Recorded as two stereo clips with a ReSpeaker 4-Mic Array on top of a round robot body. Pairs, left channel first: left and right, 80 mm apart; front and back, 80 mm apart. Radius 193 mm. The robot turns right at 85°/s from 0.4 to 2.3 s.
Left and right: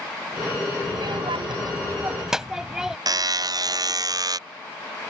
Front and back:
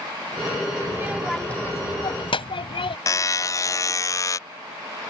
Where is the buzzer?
50° right.